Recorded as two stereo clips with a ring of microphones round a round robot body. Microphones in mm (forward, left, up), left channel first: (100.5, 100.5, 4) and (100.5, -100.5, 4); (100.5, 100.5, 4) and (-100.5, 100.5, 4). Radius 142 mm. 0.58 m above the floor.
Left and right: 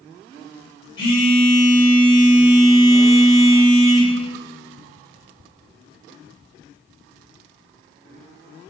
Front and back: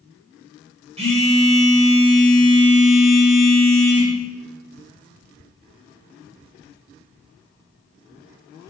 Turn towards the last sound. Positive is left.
turn(degrees=125)